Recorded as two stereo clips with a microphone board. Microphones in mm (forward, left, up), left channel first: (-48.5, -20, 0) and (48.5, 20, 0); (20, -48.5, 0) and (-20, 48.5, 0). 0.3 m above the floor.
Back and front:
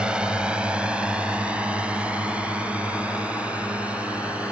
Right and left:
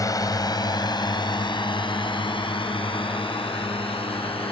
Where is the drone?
55° right.